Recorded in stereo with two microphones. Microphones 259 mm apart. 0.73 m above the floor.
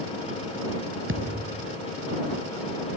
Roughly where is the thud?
Right.